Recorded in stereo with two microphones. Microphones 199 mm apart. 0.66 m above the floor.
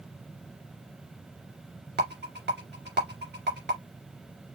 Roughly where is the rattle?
Right.